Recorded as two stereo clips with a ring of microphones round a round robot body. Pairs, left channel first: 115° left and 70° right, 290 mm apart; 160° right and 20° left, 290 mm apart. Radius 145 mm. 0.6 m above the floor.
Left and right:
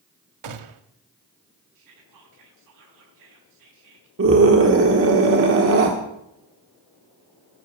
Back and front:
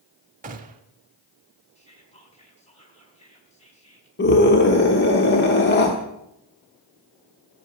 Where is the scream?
110° right, 1.3 m.